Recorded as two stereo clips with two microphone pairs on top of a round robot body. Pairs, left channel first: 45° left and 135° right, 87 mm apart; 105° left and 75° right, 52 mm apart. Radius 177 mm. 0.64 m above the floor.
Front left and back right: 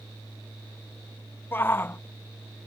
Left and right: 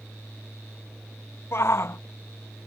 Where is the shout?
95° left.